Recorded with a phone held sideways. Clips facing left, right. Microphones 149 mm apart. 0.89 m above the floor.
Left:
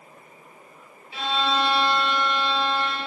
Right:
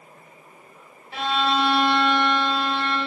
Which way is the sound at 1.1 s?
60° right (ahead or behind).